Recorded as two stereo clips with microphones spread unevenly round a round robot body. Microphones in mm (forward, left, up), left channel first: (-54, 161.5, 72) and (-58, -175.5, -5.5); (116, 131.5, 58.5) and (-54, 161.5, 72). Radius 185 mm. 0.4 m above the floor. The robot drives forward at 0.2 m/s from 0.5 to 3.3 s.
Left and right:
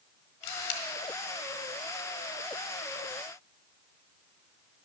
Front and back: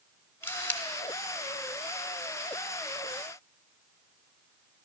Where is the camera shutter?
65° left, 1.2 m; by 0.8 s 70° left, 1.2 m.